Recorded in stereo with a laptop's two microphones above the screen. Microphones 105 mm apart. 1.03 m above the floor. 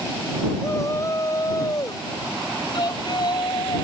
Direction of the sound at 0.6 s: 30° left (ahead or behind).